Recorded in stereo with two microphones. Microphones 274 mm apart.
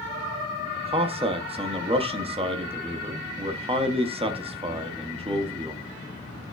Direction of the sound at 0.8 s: 20° right (ahead or behind).